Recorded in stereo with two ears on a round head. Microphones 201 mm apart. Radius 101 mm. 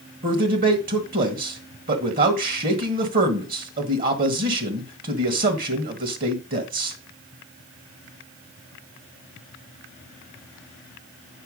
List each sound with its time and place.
0.2 s a man speaking: 40° right (ahead or behind), 1.6 m